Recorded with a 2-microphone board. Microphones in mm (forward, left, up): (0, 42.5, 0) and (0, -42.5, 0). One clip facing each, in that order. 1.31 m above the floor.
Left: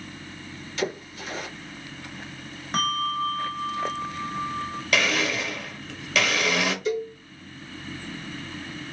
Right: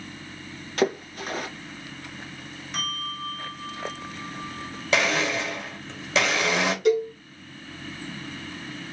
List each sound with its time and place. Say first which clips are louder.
0.8 s a splash: right 6 dB; 55° right (ahead or behind), 0.9 m
2.7 s a bell: left 9 dB; 45° left (ahead or behind), 0.7 m
4.9 s a blender: right 2 dB; 25° right (ahead or behind), 0.9 m
6.8 s a cowbell: right 6 dB; 65° right (ahead or behind), 1.0 m